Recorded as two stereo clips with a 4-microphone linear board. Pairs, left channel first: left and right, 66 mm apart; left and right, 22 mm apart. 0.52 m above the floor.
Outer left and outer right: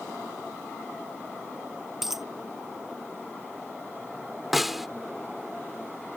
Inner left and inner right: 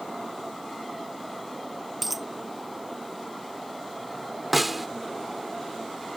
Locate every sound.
2.0 s a dropped coin: 5° right (ahead or behind)
4.5 s a snare drum: 5° right (ahead or behind)